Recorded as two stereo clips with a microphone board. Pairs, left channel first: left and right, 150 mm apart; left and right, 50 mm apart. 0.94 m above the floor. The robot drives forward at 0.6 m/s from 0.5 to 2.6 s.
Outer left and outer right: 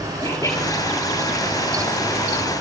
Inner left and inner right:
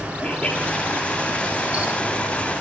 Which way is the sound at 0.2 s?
25° left (ahead or behind).